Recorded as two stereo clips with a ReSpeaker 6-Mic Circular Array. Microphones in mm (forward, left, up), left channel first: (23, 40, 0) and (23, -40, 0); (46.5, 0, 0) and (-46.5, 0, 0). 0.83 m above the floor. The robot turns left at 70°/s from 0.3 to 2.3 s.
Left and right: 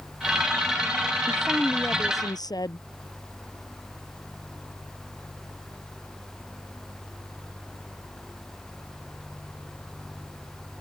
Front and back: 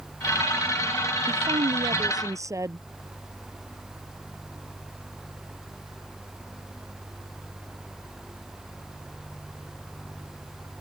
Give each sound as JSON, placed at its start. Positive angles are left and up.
{"t": 1.3, "sound": "a woman speaking", "azimuth_deg": -165}